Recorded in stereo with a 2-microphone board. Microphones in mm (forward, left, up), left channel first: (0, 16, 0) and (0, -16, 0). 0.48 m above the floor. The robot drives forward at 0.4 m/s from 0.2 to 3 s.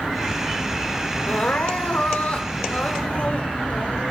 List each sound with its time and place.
1.3 s crying: 50° left (ahead or behind), 0.9 m; by 4.1 s 40° left (ahead or behind), 1.0 m